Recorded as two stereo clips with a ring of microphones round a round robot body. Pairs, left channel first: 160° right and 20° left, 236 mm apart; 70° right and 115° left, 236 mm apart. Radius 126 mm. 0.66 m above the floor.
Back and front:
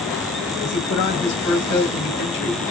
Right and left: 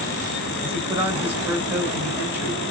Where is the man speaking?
165° right, 2.5 m.